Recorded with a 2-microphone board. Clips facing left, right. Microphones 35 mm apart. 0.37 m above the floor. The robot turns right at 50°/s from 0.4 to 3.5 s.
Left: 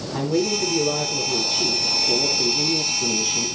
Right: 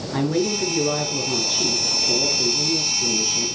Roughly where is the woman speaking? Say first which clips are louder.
Even; right.